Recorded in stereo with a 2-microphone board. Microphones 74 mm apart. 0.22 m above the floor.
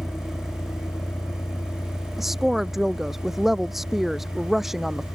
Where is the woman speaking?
5° right (ahead or behind).